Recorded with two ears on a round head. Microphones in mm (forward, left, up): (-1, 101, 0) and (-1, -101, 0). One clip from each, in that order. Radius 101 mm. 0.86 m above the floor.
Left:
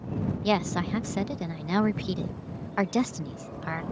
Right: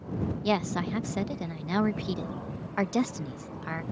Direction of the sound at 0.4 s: 5° left (ahead or behind).